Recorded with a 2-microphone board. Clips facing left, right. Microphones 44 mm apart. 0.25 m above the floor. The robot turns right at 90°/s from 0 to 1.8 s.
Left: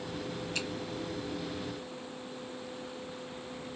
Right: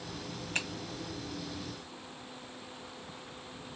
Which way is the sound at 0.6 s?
45° right (ahead or behind).